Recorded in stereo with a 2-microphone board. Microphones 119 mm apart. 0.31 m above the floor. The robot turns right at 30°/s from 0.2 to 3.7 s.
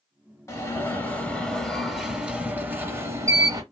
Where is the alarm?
140° left, 1.1 m; by 3.6 s 125° right, 1.1 m.